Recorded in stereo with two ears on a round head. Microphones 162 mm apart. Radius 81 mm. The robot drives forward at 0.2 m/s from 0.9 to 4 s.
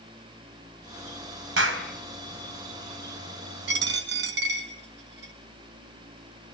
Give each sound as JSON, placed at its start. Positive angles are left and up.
{"t": 1.6, "sound": "a clap", "side_deg": -85, "distance_m": 5.0}
{"t": 3.7, "sound": "a dropped coin", "side_deg": -75, "distance_m": 2.5}